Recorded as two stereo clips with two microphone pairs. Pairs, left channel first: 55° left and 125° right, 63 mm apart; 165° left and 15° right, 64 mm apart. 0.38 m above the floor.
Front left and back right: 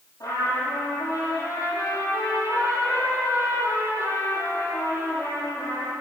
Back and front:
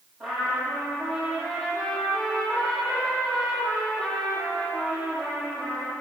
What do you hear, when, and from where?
0.2 s a trumpet: 70° left, 10 m